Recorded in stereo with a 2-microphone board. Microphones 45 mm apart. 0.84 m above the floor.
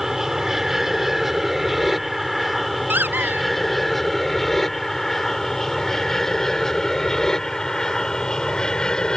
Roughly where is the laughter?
No laughter in this recording.